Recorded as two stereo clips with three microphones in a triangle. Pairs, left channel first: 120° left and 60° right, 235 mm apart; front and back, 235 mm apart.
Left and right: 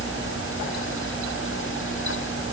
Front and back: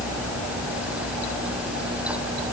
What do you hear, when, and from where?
Only background noise.